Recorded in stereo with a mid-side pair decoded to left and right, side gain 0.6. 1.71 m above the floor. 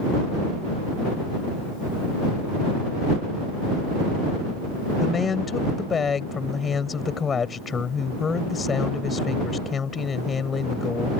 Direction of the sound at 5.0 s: 30° left.